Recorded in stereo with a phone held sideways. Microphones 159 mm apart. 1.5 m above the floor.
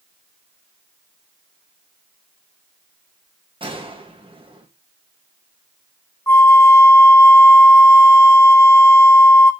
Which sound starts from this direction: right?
A gunshot, at 3.6 s.